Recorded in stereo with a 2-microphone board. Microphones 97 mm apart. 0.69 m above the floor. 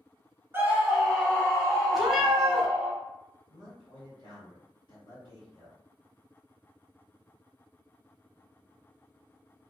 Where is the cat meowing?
5° right (ahead or behind), 0.8 m.